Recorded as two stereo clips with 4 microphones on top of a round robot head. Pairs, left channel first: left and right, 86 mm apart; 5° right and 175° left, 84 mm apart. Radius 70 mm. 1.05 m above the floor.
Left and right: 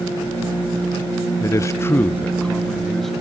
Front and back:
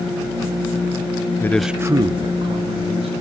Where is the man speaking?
45° left, 0.8 m; by 3.1 s 175° left, 2.5 m.